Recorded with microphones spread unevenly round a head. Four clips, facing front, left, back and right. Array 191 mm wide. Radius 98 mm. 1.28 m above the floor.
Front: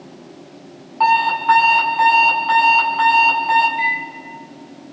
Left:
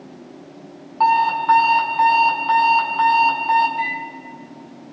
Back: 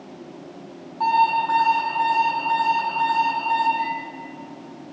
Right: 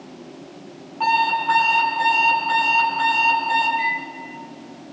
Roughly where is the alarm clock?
Ahead.